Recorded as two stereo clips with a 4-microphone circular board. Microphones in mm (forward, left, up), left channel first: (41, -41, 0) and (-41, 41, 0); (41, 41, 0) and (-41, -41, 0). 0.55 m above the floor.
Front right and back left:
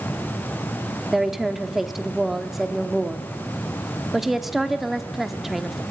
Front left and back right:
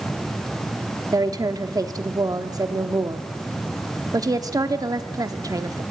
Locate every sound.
1.1 s a woman speaking: 140° right, 1.2 m